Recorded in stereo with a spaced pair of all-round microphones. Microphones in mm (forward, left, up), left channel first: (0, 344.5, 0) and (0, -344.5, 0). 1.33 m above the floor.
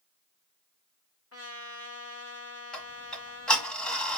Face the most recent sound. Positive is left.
turn(degrees=0)  # may be behind; listen again after turning